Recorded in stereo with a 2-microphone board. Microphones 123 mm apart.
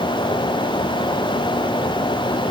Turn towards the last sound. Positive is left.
No sound to turn to.